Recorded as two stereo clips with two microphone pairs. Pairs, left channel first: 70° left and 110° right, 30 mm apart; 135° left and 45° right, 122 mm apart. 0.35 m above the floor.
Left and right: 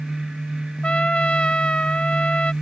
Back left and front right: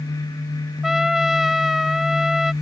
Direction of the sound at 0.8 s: 40° left.